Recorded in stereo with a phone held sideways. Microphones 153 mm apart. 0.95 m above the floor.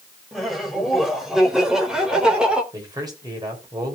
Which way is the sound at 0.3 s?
Centre (ahead or behind).